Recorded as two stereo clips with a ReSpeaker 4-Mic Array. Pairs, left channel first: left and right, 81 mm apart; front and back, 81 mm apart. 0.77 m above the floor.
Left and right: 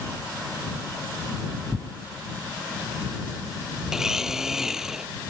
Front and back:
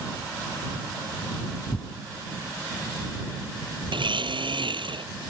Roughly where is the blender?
Behind.